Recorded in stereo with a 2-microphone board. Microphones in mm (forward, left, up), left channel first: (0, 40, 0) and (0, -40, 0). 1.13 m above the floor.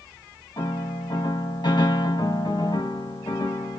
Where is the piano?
65° left (ahead or behind), 1.4 m.